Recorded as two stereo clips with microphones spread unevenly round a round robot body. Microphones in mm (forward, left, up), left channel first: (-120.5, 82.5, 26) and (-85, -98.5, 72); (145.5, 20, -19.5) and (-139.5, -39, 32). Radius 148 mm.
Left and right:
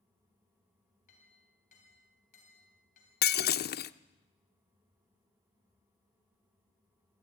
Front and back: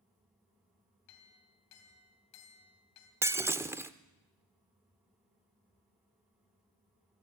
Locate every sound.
1.1 s a clink: 50° left, 3 m
3.2 s breaking glass: 105° left, 0.6 m